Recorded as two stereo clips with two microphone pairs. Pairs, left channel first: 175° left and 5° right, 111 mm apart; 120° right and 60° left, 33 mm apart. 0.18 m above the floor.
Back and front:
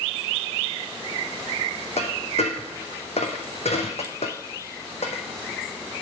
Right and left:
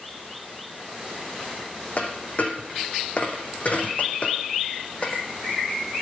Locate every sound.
2.0 s a dropped coin: 165° right, 1.4 m